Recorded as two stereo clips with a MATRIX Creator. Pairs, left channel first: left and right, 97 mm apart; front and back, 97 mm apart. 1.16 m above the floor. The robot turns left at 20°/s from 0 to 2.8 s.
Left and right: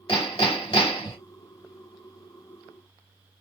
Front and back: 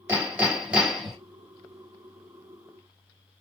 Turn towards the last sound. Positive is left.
turn(degrees=60)